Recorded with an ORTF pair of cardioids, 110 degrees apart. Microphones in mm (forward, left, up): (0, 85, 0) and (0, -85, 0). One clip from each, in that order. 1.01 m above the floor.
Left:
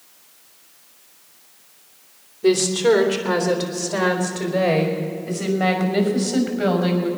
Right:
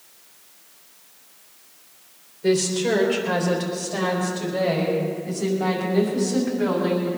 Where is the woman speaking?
50° left, 3 m; by 7.1 s 55° left, 6.5 m.